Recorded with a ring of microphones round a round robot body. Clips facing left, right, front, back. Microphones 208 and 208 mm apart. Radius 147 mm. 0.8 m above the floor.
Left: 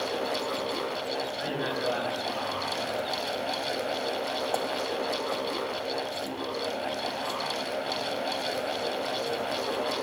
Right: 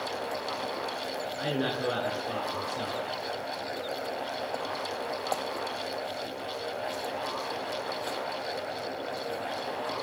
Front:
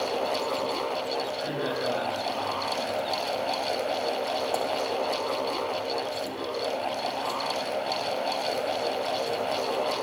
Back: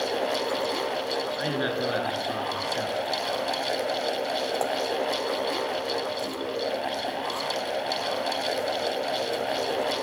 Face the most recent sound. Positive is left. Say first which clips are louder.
# right 1 dB, back 2 dB
turn(degrees=-150)